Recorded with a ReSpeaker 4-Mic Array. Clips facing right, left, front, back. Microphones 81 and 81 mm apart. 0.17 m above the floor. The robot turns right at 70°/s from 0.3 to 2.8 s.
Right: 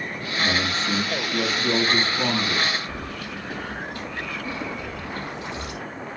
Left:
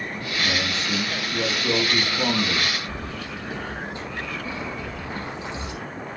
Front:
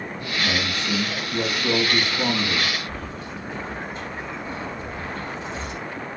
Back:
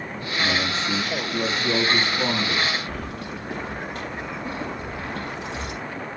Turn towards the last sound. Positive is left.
turn(degrees=160)